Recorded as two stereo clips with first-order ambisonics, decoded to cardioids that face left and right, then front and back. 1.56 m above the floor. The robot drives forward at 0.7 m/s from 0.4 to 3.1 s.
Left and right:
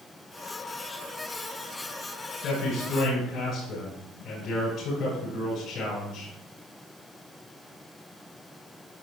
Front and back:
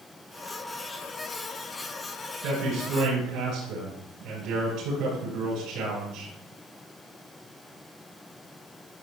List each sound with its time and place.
2.4 s a man speaking: 145° left, 4.5 m; by 6.3 s 150° left, 5 m